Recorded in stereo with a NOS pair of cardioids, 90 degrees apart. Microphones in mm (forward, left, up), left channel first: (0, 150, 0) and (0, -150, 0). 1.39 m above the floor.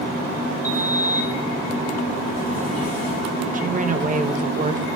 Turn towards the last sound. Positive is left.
turn(degrees=-25)